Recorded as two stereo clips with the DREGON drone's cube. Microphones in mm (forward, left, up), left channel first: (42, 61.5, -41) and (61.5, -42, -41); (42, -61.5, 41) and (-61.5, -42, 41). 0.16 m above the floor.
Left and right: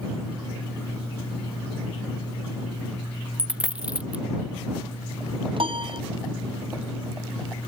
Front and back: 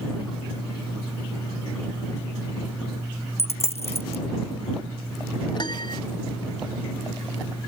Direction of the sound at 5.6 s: 50° right.